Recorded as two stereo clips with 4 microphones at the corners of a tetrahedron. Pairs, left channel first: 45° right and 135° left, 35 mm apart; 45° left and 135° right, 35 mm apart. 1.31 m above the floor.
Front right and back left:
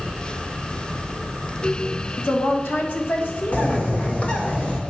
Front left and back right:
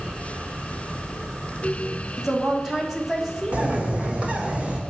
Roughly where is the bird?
Right.